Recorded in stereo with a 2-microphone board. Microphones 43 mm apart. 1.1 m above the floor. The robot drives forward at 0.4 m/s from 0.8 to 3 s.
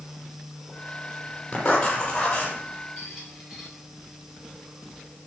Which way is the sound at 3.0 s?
Centre (ahead or behind).